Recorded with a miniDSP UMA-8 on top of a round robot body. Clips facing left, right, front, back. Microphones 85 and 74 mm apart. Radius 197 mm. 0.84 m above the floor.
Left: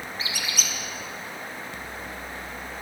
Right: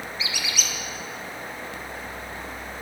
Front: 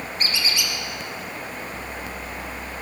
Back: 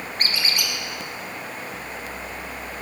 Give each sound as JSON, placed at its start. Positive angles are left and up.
{"t": 0.2, "sound": "a squeak", "azimuth_deg": 140, "distance_m": 0.7}